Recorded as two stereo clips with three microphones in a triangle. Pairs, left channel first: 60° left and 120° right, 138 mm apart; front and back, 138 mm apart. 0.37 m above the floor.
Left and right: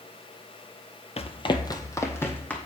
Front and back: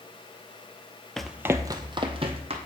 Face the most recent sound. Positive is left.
turn(degrees=135)